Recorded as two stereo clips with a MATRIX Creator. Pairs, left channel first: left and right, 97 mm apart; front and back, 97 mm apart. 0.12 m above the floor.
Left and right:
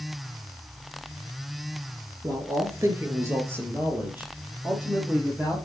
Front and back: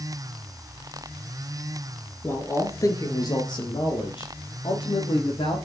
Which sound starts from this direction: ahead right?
A man speaking, at 2.2 s.